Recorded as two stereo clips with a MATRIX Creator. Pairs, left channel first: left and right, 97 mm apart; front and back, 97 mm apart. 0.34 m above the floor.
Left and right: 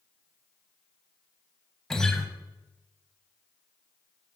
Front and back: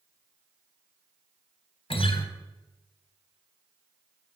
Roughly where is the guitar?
Ahead.